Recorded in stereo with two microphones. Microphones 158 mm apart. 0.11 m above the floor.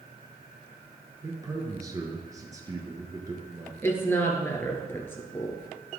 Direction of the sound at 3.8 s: 15° left (ahead or behind).